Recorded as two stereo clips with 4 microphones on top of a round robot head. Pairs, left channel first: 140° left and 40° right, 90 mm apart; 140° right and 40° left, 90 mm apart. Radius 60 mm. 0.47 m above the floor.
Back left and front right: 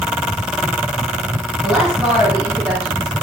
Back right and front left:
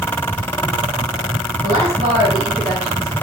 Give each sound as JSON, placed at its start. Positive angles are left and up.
{"t": 1.6, "sound": "a woman speaking", "azimuth_deg": 45, "distance_m": 3.5}